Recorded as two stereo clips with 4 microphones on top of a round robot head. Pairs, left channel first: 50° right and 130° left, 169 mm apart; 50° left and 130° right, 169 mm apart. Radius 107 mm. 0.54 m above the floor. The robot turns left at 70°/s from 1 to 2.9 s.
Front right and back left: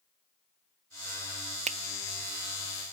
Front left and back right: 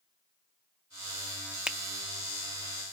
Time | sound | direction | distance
1.7 | a finger snap | 150° left | 0.6 m